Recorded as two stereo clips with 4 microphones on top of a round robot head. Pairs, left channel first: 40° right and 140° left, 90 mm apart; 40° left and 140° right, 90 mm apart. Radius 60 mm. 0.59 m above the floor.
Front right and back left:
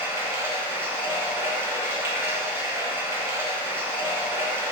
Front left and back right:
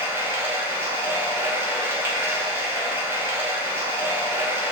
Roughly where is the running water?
Behind.